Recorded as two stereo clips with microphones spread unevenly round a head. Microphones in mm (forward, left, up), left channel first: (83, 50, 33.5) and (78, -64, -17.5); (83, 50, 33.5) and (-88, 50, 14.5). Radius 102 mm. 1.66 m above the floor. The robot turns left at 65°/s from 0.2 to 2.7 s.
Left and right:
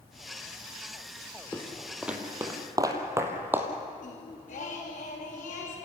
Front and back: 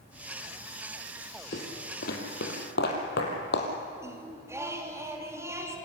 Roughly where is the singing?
Left.